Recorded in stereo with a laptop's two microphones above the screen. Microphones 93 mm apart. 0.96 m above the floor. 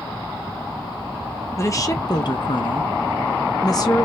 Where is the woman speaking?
30° left (ahead or behind), 1.0 m; by 4.0 s 35° left (ahead or behind), 1.1 m.